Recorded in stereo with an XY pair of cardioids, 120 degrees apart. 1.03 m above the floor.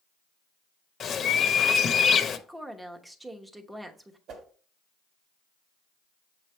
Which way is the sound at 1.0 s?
45° left.